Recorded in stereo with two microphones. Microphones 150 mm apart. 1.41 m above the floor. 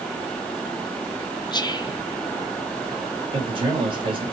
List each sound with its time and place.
1.5 s whispering: 30° left (ahead or behind), 0.7 m
3.3 s a man speaking: 35° right (ahead or behind), 2.5 m